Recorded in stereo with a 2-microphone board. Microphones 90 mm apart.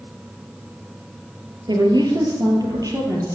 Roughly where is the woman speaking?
Right.